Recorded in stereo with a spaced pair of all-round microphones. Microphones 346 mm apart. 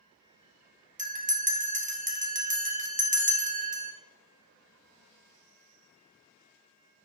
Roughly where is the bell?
Right.